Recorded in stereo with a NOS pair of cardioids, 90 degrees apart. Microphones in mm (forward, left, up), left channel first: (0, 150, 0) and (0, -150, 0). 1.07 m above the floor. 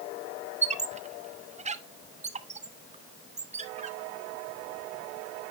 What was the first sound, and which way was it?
A squeak, 25° right.